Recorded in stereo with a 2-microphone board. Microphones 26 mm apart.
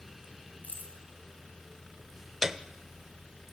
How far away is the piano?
About 0.6 m.